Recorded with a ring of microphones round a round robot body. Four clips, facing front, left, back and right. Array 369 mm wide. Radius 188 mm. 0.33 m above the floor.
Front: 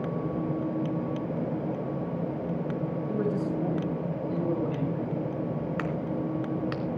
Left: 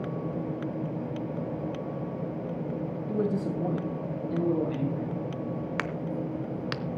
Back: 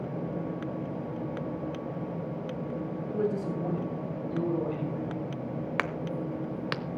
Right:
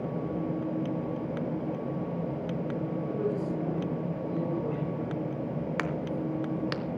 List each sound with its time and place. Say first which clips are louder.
3.1 s a man speaking: left 4 dB, even; 70° left, 2.5 m; by 5.1 s 65° left, 5 m
5.8 s a crack: right 1 dB, front 2 dB; 175° left, 1.0 m